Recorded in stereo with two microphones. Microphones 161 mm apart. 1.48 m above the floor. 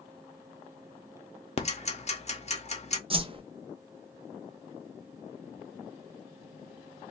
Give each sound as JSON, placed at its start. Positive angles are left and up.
{"t": 1.6, "sound": "ticking", "side_deg": 45, "distance_m": 0.6}
{"t": 3.1, "sound": "a whoosh", "side_deg": -35, "distance_m": 0.5}